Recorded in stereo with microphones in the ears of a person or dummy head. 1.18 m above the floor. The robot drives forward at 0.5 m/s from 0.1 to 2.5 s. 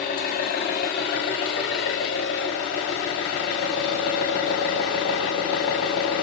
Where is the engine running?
50° left (ahead or behind), 1.6 m; by 6.2 s 55° left (ahead or behind), 1.4 m.